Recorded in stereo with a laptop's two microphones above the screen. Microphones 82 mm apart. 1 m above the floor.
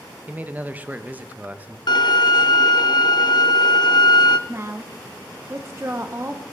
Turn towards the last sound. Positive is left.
turn(degrees=-35)  # may be behind; listen again after turning